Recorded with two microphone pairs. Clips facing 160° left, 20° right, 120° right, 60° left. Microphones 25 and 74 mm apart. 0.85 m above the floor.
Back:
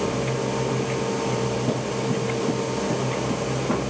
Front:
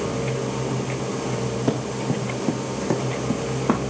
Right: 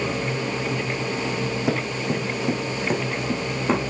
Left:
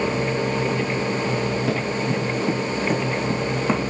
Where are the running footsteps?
50° right, 2.5 m; by 3.8 s 30° right, 3.5 m.